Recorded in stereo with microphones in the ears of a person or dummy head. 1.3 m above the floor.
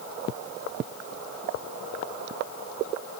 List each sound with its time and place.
Only background noise.